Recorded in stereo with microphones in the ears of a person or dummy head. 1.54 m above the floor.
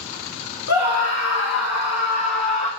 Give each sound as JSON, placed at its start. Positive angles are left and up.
{"t": 0.7, "sound": "a scream", "side_deg": 80, "distance_m": 1.8}